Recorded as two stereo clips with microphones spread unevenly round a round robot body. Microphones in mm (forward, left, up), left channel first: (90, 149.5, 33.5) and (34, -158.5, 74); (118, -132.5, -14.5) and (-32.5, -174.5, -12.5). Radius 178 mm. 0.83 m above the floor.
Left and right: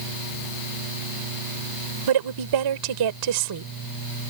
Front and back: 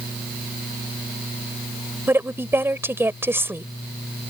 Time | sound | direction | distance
2.1 | a woman speaking | 90° right | ?